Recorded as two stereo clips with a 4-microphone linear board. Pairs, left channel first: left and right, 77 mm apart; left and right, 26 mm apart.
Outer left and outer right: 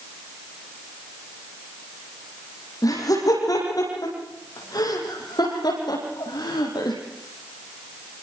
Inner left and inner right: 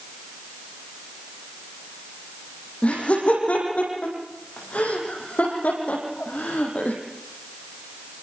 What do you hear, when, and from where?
2.8 s laughter: 50° left (ahead or behind), 9 m; by 7.0 s 65° left (ahead or behind), 8 m